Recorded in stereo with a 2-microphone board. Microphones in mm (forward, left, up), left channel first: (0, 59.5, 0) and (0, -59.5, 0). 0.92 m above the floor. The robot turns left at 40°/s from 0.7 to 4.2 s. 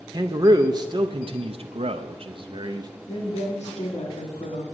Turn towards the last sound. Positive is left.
turn(degrees=75)